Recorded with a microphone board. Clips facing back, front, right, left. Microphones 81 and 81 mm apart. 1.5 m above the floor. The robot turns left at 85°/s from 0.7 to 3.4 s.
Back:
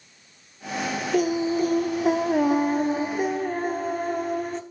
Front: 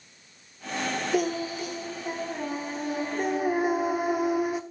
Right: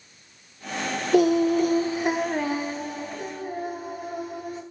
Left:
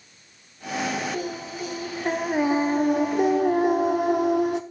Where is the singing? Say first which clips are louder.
Back 7 dB, right 13 dB; 85° right, 0.9 m; by 4.6 s 80° left, 0.9 m.